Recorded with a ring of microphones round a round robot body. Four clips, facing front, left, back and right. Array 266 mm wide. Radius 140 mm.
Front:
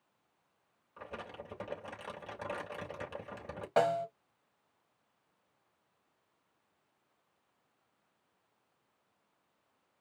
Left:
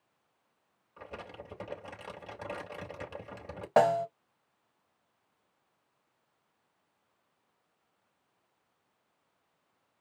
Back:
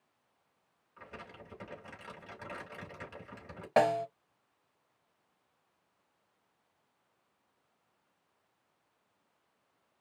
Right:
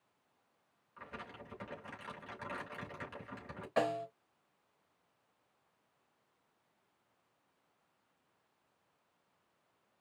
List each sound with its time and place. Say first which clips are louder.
1.0 s crumpling: left 4 dB, front 4 dB; 40° left, 3 m
3.8 s a snare drum: left 10 dB, back 2 dB; 110° left, 0.7 m